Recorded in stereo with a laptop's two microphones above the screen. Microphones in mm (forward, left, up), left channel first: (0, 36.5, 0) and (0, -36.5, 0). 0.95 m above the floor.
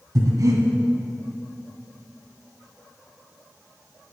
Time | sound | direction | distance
0.1 | breathing | 55° right (ahead or behind) | 2 m